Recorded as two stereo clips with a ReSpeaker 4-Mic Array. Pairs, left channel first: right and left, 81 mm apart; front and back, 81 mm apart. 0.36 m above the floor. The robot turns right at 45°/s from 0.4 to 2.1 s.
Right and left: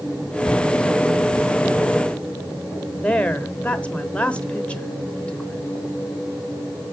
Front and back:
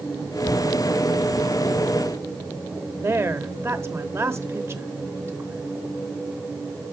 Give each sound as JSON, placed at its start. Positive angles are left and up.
{"t": 3.0, "sound": "a woman speaking", "azimuth_deg": -155, "distance_m": 0.9}